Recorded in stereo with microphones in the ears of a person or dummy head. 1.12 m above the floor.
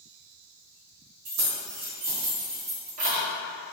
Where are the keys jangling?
80° right, 1.5 m; by 3.2 s 30° right (ahead or behind), 1.3 m.